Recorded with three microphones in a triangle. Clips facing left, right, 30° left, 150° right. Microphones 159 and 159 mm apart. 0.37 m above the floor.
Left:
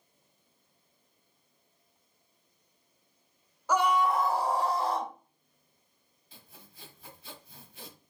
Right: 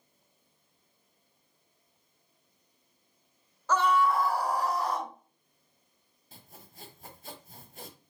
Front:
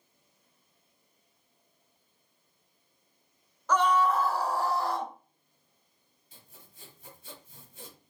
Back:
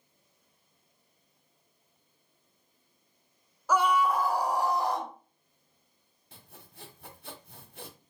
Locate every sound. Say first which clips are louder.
3.7 s a scream: even, front 1 dB; 145° left, 0.8 m
6.3 s sawing: right 3 dB, back 4 dB; 130° right, 1.0 m